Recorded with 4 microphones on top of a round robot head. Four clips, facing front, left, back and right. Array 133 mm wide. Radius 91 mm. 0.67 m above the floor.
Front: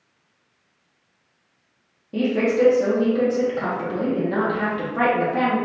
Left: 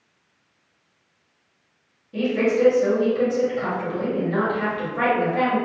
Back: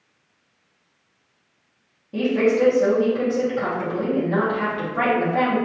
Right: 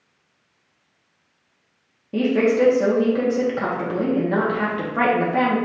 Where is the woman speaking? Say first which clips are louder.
Right 3 dB, back 1 dB; 80° right, 1.2 m.